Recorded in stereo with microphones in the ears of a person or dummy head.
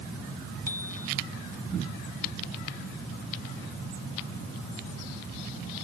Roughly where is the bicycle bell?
Centre.